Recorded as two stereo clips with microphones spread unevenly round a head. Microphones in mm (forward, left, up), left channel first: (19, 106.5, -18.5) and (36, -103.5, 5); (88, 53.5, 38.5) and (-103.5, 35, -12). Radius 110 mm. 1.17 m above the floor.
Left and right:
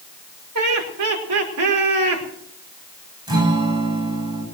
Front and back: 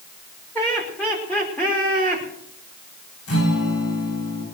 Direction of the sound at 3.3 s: 15° right.